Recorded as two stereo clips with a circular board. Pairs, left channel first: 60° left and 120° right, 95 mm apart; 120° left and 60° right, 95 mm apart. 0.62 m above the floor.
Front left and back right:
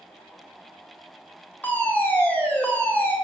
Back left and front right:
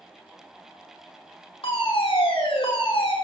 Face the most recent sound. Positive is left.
turn(degrees=135)